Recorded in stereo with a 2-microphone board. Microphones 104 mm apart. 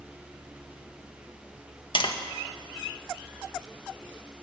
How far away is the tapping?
About 1.8 m.